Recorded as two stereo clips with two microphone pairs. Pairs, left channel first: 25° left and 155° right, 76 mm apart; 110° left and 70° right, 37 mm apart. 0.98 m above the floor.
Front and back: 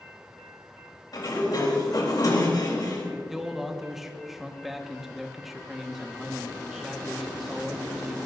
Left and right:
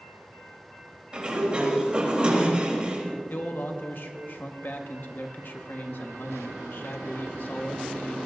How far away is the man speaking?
About 1.4 m.